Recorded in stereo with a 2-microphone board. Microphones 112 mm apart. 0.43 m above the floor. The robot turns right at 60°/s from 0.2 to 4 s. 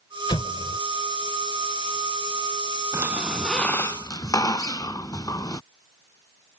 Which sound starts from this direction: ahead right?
A squeak, at 2.9 s.